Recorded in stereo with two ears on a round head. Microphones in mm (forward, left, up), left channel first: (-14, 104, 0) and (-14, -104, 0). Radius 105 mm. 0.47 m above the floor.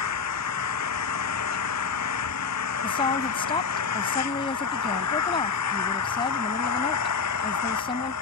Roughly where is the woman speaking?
Left.